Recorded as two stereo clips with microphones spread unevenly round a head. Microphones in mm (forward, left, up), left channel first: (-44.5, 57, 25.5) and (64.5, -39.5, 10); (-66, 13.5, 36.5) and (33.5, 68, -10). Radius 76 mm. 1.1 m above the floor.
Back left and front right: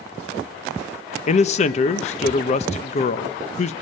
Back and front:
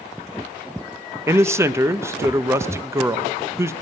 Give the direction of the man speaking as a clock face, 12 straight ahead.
9 o'clock.